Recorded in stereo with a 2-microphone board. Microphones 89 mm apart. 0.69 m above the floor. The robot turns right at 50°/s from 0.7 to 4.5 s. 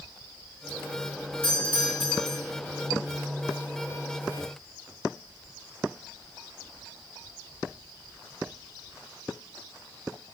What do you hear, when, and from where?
1.4 s a doorbell: 70° left, 6 m; by 2.4 s 115° left, 6 m